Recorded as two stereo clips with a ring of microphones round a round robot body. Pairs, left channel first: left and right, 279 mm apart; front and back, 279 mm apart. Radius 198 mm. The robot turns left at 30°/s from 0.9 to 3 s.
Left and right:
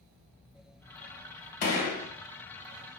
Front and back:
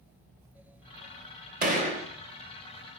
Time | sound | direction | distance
1.6 | a gunshot | 120° left | 1.0 m